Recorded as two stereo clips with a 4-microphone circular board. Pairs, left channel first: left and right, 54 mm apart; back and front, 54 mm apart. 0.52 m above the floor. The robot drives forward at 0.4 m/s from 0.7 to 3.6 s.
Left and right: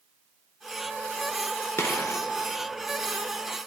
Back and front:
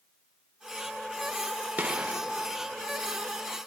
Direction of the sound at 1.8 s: 60° left.